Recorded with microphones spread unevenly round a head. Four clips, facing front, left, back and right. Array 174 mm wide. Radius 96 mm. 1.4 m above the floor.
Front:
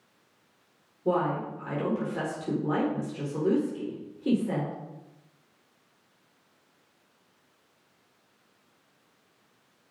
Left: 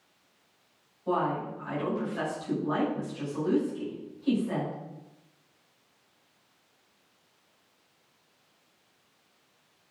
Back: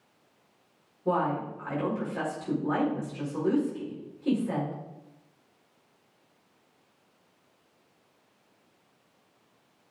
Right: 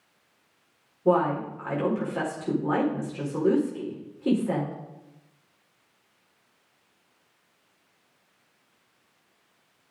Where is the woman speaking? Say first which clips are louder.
Right 6 dB, front 1 dB; 70° right, 4.5 m.